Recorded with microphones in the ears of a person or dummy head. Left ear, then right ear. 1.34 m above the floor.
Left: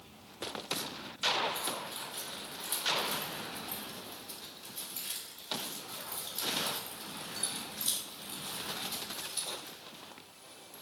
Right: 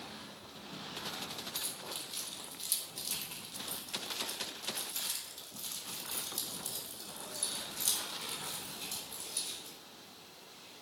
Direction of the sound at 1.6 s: 65° right (ahead or behind).